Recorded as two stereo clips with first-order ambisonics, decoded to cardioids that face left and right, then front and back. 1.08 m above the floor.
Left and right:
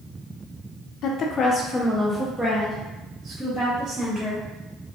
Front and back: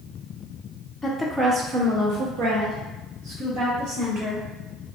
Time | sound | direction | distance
1.0 | a woman speaking | 80° left | 0.6 m